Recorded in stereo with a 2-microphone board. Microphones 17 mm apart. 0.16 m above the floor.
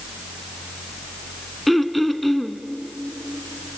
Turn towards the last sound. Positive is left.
turn(degrees=5)  # may be behind; listen again after turning